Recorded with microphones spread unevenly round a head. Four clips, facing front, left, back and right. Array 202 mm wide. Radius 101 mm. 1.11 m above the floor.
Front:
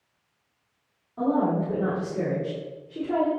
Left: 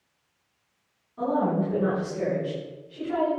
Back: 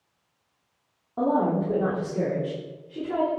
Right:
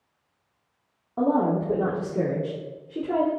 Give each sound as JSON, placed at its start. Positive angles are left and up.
{"t": 1.2, "sound": "a woman speaking", "azimuth_deg": -125, "distance_m": 3.5}